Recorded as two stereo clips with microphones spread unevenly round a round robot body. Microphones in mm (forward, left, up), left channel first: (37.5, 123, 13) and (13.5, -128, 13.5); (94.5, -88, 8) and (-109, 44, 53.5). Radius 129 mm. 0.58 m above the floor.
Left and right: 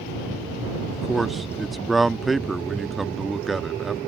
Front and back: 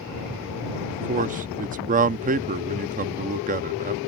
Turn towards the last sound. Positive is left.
turn(degrees=175)